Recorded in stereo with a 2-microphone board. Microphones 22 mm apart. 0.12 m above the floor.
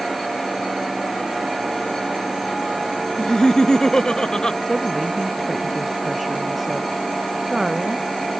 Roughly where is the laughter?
Left.